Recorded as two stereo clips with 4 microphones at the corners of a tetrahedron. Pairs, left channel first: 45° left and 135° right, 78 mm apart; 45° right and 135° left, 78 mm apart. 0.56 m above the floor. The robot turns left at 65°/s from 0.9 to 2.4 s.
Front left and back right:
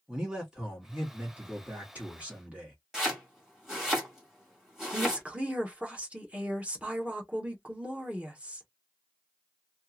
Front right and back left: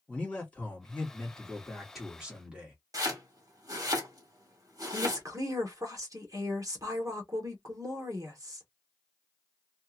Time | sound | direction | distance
0.1 | a man speaking | 75° right | 1.2 m
2.9 | chopping | 140° left | 1.6 m
4.9 | a woman speaking | 155° left | 1.1 m